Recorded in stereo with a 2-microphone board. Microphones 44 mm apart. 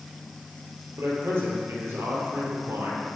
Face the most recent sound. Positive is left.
turn(degrees=-70)  # may be behind; listen again after turning